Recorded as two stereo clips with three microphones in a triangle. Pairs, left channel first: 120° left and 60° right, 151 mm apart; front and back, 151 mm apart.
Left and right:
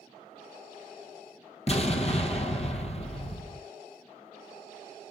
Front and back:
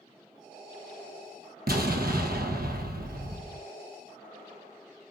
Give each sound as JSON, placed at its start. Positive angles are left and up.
{"t": 1.7, "sound": "an explosion", "azimuth_deg": 170, "distance_m": 1.2}